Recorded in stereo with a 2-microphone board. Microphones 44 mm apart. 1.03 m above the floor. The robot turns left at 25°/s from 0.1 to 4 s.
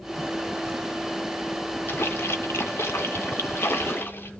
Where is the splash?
115° left, 1.3 m; by 4.3 s 60° left, 1.3 m.